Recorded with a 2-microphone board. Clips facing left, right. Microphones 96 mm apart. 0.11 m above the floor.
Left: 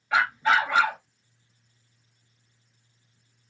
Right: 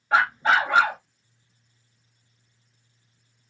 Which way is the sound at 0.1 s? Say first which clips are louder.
Right 2 dB; 40° right (ahead or behind).